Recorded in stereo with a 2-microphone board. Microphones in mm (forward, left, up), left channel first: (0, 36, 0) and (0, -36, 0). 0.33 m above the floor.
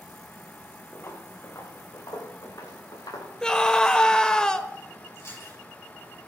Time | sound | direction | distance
0.9 | footsteps | 35° left (ahead or behind) | 3 m
3.4 | a scream | 10° left (ahead or behind) | 0.9 m
5.2 | chewing | 40° left (ahead or behind) | 7 m